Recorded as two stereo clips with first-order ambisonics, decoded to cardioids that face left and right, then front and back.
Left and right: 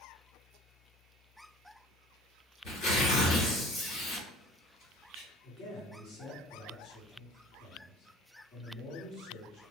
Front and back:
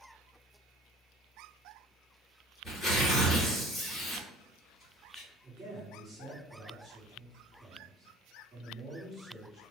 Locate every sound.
2.6 s tearing paper: 80° left, 1.8 m
5.4 s a man speaking: 100° left, 1.5 m